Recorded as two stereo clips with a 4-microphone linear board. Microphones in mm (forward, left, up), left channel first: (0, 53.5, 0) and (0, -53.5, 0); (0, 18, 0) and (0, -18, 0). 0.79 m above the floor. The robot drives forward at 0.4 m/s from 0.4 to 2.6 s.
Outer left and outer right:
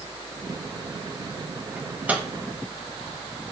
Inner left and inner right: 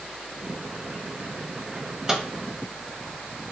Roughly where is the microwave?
Centre.